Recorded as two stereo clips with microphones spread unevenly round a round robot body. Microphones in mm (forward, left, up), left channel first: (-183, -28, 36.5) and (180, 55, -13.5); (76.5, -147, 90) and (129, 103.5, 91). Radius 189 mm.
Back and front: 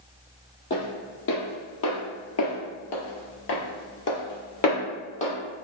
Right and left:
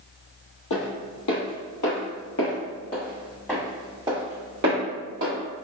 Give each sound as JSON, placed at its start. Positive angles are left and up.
{"t": 0.7, "sound": "footsteps", "azimuth_deg": -110, "distance_m": 2.0}